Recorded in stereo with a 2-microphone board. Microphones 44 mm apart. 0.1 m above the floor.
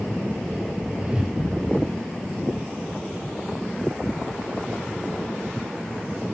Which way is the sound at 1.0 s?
15° right (ahead or behind).